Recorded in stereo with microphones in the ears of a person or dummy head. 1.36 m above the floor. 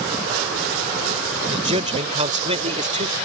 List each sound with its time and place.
1.5 s a man speaking: 35° right (ahead or behind); by 3.1 s 40° right (ahead or behind)